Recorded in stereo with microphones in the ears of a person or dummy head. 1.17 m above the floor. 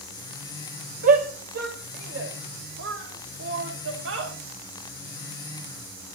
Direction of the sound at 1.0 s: 50° right (ahead or behind).